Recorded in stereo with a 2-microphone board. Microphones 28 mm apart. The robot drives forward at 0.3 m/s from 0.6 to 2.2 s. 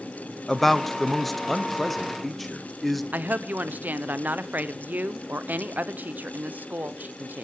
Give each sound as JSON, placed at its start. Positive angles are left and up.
{"t": 0.5, "sound": "a man speaking", "side_deg": 10, "distance_m": 0.5}
{"t": 3.1, "sound": "a woman speaking", "side_deg": -85, "distance_m": 0.7}